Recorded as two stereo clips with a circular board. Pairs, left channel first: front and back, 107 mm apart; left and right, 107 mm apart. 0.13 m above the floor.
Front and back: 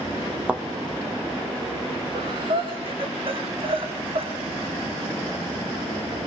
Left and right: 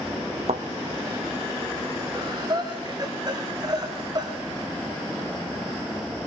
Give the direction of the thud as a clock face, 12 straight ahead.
3 o'clock.